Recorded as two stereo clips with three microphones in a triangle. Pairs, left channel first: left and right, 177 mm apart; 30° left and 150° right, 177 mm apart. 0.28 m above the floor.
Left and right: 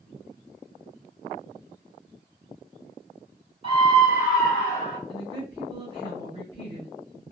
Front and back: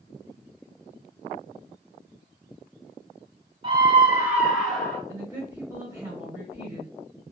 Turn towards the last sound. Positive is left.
turn(degrees=-90)